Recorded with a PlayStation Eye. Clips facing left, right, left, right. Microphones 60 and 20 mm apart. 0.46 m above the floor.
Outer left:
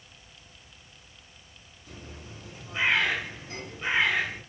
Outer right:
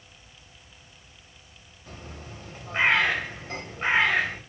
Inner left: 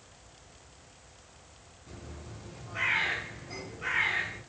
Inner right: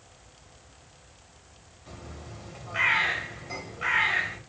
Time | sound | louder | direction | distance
1.9 | a bird | outer right 3 dB, inner right 3 dB | 45° right (ahead or behind) | 3 m